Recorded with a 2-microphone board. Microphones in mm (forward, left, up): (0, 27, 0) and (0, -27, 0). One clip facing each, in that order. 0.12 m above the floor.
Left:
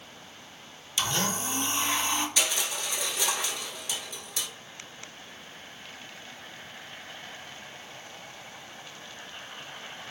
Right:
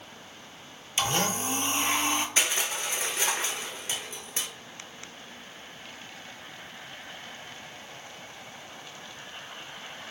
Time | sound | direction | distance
1.0 | a blender | 35° right (ahead or behind) | 0.6 m
2.4 | crushing | 35° right (ahead or behind) | 0.5 m